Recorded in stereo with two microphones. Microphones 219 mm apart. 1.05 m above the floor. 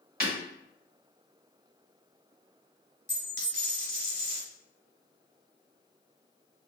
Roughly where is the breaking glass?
Right.